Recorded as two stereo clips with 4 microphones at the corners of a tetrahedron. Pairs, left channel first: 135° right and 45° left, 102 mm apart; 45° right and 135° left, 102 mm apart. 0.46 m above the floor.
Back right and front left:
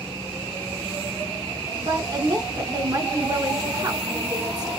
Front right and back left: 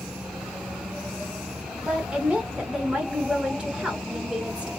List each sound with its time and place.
1.8 s a woman speaking: 65° left, 1.0 m